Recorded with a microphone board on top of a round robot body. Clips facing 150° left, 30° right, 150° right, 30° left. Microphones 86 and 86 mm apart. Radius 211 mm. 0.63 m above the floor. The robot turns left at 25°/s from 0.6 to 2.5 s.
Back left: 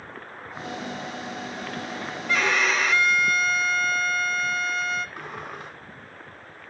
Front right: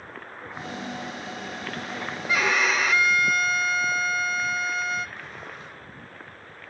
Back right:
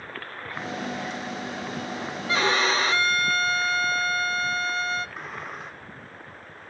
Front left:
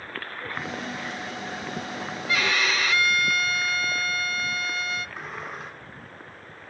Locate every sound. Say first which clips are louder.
2.3 s a violin: even, back right 3 dB; 110° right, 0.8 m; by 5.1 s 115° right, 0.8 m
5.2 s a sliding door: back left 4 dB, even; 120° left, 1.7 m